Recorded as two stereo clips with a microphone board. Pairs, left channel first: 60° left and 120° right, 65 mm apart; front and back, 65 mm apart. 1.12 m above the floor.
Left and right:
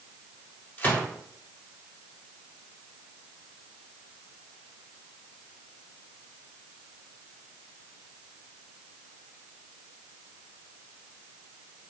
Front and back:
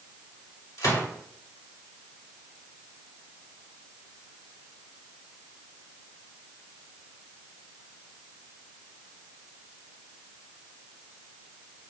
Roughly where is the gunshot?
Ahead.